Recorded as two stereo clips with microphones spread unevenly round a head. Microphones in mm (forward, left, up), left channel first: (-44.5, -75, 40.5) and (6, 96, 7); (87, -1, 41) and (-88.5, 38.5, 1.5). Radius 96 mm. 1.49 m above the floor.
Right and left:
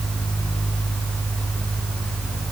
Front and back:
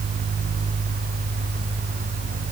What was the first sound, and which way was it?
Only background noise.